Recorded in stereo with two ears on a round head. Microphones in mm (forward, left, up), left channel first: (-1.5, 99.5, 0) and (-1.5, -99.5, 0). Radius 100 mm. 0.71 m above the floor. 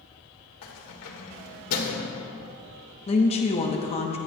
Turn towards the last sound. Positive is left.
turn(degrees=25)  # may be behind; listen again after turning